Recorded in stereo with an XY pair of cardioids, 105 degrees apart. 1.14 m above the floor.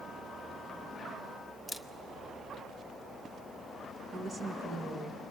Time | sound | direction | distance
1.7 | a camera shutter | 10° right | 0.7 m
4.1 | a woman speaking | 40° right | 1.6 m